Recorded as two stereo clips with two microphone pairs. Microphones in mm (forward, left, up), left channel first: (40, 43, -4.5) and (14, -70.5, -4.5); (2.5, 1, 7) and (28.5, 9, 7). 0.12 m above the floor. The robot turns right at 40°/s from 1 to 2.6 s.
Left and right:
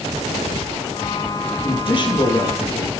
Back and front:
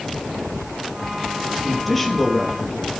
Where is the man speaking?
100° left, 3 m; by 2.9 s 140° left, 3 m.